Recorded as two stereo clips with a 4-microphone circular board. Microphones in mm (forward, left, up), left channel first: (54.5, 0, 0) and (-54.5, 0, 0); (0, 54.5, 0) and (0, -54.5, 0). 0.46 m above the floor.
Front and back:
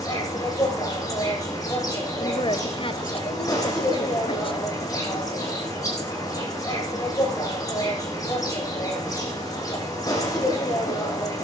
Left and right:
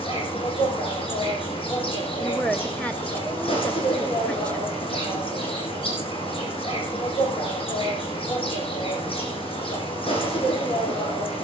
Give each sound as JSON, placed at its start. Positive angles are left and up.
{"t": 0.0, "sound": "an insect", "azimuth_deg": 60, "distance_m": 10.0}
{"t": 2.2, "sound": "a woman speaking", "azimuth_deg": 15, "distance_m": 2.0}